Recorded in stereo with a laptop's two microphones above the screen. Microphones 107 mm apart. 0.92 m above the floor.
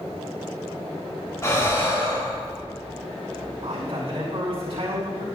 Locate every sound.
1.4 s breathing: 30° left (ahead or behind), 2.0 m
3.6 s a man speaking: 55° right (ahead or behind), 4 m